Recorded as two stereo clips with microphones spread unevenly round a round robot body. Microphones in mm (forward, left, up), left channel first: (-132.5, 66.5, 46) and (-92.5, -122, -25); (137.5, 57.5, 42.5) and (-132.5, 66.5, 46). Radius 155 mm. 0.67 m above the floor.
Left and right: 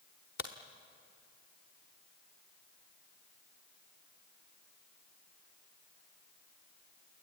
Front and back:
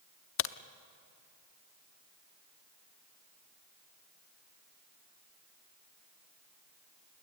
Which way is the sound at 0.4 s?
40° left.